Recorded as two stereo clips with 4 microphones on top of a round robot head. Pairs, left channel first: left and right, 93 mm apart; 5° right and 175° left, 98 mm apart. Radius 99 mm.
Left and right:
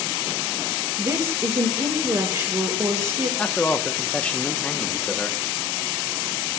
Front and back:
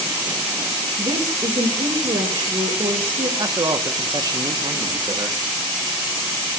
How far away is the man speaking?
About 1.1 m.